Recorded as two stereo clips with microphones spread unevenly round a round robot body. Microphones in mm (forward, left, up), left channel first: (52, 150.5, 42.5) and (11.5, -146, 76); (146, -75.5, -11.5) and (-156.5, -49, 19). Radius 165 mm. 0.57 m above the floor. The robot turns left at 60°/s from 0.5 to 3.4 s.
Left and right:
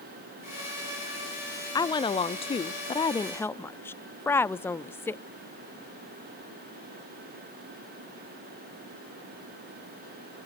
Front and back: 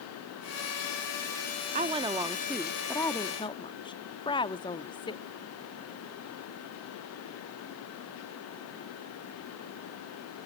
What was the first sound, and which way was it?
A woman speaking, 125° left.